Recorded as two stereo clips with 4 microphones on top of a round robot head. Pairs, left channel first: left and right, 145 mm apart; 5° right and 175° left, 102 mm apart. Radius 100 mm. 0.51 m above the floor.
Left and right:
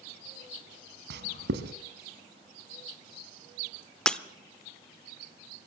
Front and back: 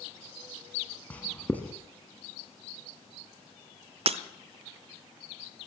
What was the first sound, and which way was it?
Writing, 85° right.